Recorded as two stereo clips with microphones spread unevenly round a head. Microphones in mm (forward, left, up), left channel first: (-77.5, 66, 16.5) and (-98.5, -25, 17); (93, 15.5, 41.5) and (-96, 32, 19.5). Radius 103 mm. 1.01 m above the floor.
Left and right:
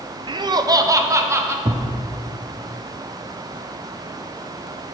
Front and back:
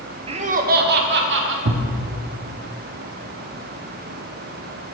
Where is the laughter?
135° right, 0.6 m; by 1.6 s 165° right, 1.2 m.